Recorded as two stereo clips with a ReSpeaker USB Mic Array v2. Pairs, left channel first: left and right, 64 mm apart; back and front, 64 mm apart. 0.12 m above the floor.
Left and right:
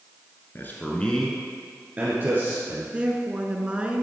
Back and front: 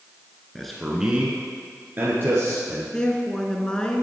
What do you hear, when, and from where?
0.6 s a man speaking: 100° left, 1.6 m; by 2.8 s 50° right, 3 m
2.9 s a woman speaking: 125° right, 1.2 m